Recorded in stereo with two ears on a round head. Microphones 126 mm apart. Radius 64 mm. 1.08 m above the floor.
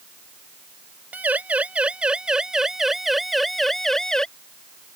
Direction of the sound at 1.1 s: 10° right (ahead or behind).